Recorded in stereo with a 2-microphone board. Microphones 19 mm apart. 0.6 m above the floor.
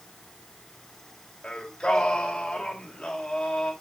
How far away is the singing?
About 2 m.